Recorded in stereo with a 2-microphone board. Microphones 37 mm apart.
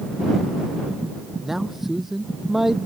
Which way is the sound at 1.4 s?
10° right (ahead or behind).